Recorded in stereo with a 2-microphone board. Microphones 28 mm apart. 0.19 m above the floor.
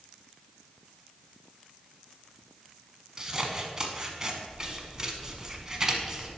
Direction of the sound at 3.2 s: 25° right (ahead or behind).